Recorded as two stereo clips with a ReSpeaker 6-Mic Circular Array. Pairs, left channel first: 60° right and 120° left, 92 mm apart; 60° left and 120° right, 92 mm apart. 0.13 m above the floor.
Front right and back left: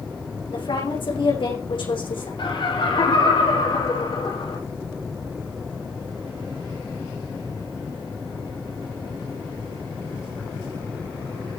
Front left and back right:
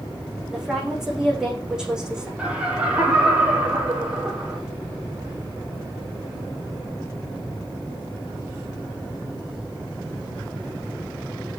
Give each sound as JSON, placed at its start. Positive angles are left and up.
{"t": 0.5, "sound": "a woman speaking", "azimuth_deg": -35, "distance_m": 8.0}
{"t": 2.4, "sound": "laughter", "azimuth_deg": -45, "distance_m": 5.5}